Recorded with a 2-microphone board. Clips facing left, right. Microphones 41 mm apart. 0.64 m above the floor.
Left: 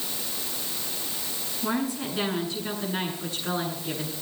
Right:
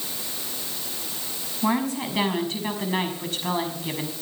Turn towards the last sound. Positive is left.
turn(degrees=-60)  # may be behind; listen again after turning